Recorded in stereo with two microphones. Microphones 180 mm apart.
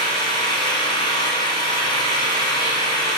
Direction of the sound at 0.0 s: 25° left (ahead or behind).